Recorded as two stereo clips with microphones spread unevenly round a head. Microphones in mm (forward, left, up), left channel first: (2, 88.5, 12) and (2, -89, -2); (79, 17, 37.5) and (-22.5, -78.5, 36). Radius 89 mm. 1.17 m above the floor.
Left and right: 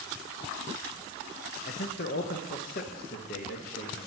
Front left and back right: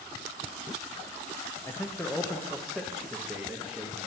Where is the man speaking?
115° left, 0.9 m; by 4.1 s 140° left, 2 m.